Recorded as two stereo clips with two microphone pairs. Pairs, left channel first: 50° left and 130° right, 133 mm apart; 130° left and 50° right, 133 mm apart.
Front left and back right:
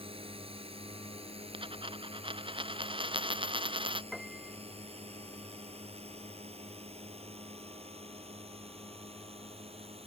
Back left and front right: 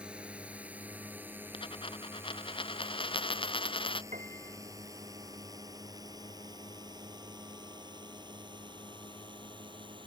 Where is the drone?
130° right; by 10.1 s 95° right.